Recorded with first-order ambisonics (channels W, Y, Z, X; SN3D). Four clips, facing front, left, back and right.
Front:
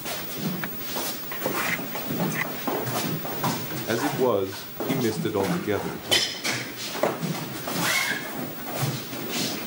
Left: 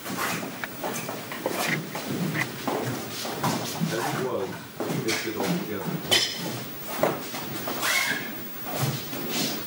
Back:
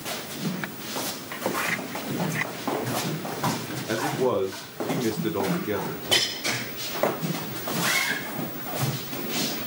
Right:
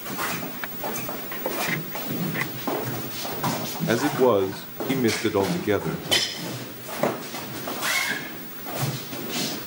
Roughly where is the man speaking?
Right.